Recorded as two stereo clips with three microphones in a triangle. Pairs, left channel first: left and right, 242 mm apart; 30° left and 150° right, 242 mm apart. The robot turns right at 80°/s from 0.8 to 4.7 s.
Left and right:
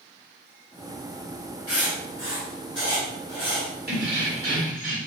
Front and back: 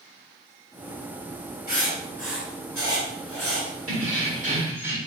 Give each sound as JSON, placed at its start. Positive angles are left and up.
{"t": 1.7, "sound": "writing", "azimuth_deg": 75, "distance_m": 2.0}
{"t": 3.9, "sound": "keys jangling", "azimuth_deg": -135, "distance_m": 1.5}